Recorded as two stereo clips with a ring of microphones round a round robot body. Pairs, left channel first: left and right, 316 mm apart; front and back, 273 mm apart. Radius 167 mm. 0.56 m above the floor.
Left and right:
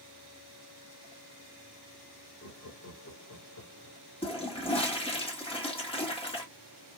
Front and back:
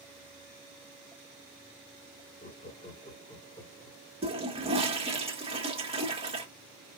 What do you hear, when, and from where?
2.4 s laughter: 40° left, 1.7 m; by 4.0 s 85° left, 1.5 m
4.2 s a toilet flushing: 140° left, 1.3 m